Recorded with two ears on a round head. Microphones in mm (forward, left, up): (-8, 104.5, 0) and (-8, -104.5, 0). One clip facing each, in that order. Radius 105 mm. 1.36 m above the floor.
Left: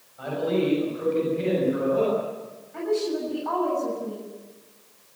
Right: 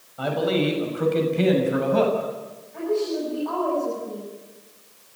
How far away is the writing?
No writing in this recording.